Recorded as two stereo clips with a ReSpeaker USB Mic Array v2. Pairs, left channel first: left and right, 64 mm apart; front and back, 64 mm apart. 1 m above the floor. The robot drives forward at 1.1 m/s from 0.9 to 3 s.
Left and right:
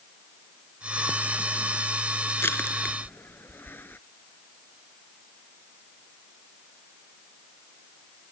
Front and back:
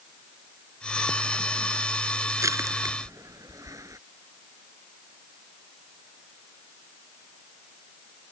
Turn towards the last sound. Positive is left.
turn(degrees=150)